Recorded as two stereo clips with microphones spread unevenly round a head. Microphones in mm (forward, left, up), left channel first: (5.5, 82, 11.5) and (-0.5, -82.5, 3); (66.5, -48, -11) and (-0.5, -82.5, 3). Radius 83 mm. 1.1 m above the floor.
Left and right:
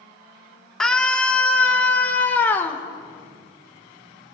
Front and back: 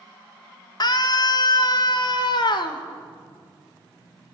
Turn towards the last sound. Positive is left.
turn(degrees=10)